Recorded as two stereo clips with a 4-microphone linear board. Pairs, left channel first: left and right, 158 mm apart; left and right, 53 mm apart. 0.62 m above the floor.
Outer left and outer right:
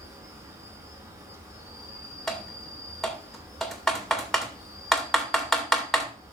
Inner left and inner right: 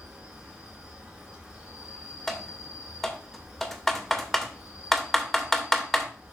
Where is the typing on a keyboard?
Centre (ahead or behind), 2.0 m.